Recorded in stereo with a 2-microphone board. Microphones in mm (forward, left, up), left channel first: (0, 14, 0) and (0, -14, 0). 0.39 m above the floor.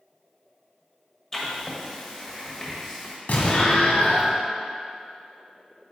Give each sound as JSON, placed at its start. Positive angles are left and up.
{"t": 1.3, "sound": "writing", "side_deg": 20, "distance_m": 1.5}
{"t": 3.3, "sound": "an explosion", "side_deg": 75, "distance_m": 1.5}